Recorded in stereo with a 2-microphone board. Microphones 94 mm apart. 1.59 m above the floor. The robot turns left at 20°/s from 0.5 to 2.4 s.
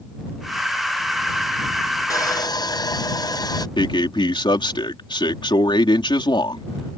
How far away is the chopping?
I don't hear chopping.